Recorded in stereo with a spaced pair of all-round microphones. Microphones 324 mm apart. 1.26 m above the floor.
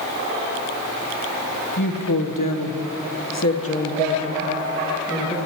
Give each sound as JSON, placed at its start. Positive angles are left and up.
{"t": 1.8, "sound": "a woman speaking", "side_deg": 65, "distance_m": 1.2}